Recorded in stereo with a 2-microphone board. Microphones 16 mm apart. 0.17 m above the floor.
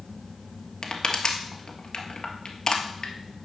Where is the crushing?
50° left (ahead or behind), 1.3 m.